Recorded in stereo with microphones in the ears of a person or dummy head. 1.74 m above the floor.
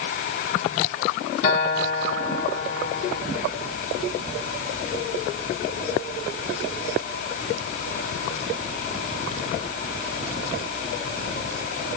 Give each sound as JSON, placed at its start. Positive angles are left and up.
{"t": 1.4, "sound": "a guitar", "side_deg": 45, "distance_m": 1.6}